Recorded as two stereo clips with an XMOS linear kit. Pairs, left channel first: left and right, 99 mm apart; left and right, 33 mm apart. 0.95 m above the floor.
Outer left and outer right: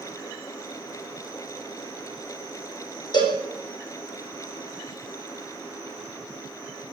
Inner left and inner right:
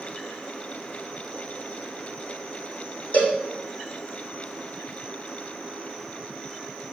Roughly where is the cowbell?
Left.